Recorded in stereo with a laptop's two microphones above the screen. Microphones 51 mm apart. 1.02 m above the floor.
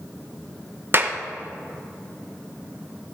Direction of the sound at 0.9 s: 40° right (ahead or behind).